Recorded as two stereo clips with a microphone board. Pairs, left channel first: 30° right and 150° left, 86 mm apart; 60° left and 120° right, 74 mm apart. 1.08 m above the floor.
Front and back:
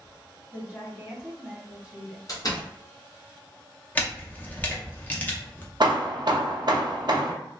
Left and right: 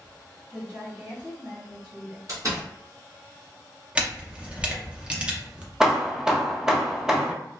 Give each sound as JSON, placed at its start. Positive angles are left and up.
{"t": 0.5, "sound": "a woman speaking", "azimuth_deg": -130, "distance_m": 1.7}
{"t": 2.3, "sound": "a door slam", "azimuth_deg": -75, "distance_m": 0.9}
{"t": 4.0, "sound": "a camera shutter", "azimuth_deg": -70, "distance_m": 0.6}
{"t": 5.8, "sound": "hammering", "azimuth_deg": 160, "distance_m": 0.5}